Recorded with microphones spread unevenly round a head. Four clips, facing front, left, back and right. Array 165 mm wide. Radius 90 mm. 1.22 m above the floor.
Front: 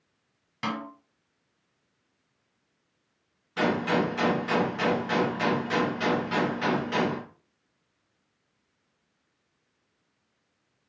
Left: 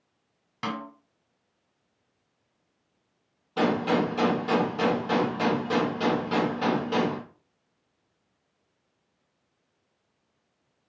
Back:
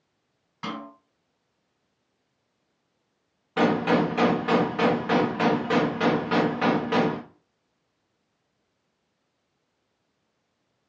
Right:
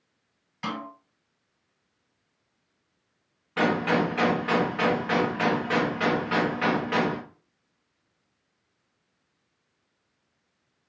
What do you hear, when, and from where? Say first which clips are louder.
0.6 s a snare drum: even, front 2 dB; 70° left, 1.9 m
3.6 s a gunshot: even, back 4 dB; 160° left, 0.9 m